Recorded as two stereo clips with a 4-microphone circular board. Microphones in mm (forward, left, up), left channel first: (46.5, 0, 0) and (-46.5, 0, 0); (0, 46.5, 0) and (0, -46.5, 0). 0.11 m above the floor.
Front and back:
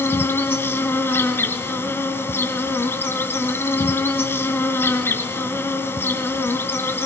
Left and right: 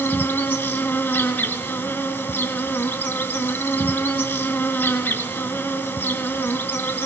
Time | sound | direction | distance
0.0 | an insect | 40° left | 2.5 m